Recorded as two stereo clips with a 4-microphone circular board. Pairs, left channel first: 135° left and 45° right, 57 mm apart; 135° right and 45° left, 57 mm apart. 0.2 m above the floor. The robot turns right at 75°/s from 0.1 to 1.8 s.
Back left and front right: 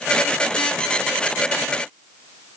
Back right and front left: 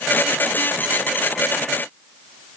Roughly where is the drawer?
I don't hear a drawer.